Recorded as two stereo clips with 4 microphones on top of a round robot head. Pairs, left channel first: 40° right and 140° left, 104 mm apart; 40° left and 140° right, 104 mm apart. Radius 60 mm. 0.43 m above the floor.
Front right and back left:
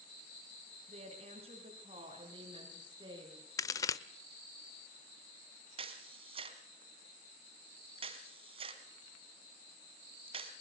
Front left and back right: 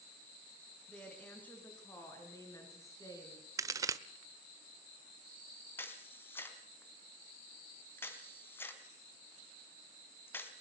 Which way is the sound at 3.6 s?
90° right.